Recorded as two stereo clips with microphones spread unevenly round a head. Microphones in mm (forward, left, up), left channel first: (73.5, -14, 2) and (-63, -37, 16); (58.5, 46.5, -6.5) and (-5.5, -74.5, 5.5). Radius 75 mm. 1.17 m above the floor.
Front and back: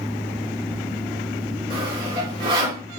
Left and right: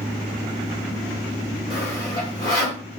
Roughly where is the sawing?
Behind left.